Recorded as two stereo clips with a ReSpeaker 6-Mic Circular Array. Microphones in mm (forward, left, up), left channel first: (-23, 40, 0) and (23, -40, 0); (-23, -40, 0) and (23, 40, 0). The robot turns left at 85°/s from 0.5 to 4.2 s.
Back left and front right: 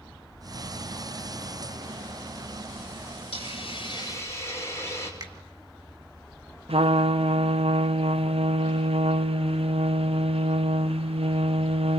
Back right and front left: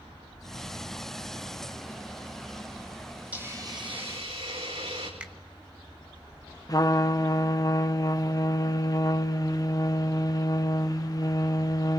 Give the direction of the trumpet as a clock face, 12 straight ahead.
2 o'clock.